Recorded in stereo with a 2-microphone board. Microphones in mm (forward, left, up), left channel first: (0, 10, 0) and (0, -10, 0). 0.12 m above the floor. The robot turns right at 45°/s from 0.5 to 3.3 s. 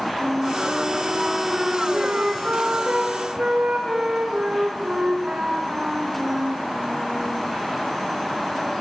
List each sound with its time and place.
0.2 s a flute: 165° left, 7 m; by 7.4 s 70° right, 7 m